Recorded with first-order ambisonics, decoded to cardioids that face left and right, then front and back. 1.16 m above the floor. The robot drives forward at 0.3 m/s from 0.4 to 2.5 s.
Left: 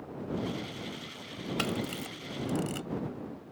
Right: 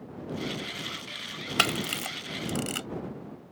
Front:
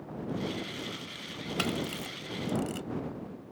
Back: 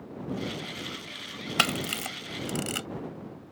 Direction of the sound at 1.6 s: 135° right.